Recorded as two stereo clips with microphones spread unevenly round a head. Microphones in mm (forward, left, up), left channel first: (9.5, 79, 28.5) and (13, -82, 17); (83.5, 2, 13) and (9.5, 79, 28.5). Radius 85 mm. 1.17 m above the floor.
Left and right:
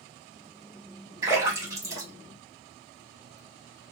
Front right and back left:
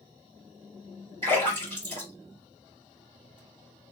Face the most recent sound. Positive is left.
turn(degrees=-160)